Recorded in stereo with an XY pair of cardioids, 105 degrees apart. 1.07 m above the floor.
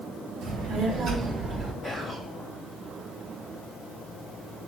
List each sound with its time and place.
0.4 s a child speaking: 70° right, 2.5 m; by 1.7 s 20° right, 1.9 m
1.8 s whispering: 30° right, 2.0 m